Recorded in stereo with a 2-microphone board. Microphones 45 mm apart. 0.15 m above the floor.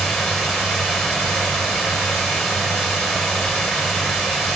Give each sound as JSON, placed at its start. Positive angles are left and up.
{"t": 0.0, "sound": "running water", "side_deg": -5, "distance_m": 8.0}